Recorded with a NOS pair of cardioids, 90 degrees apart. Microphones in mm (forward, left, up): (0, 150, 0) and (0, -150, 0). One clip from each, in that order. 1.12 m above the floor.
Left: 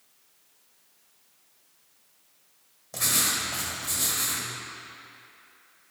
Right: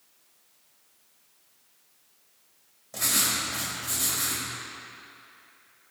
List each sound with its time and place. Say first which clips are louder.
2.9 s writing: even; 15° left, 2.5 m